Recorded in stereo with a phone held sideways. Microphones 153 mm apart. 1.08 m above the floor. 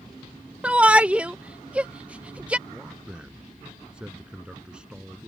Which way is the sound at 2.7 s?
5° right (ahead or behind).